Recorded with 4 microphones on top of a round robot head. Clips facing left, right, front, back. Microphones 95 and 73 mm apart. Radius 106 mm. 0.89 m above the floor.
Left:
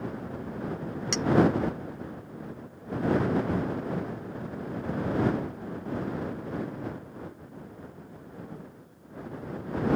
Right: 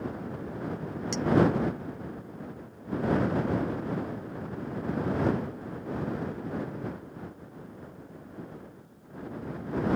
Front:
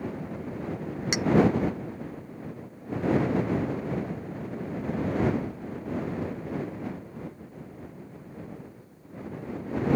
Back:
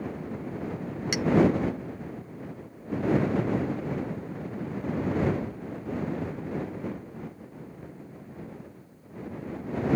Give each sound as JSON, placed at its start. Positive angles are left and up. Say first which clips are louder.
{"t": 1.1, "sound": "a clink", "louder": "left 1 dB, even", "azimuth_deg": 70}